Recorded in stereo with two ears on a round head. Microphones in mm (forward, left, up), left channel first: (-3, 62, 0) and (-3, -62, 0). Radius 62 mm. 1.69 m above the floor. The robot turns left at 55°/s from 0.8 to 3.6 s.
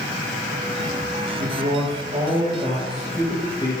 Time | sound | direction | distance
1.4 | a man speaking | 90° right | 6.5 m